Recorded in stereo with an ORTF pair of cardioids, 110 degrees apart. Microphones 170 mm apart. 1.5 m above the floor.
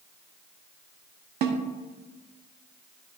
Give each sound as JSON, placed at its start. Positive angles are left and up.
{"t": 1.4, "sound": "a snare drum", "azimuth_deg": -70, "distance_m": 0.9}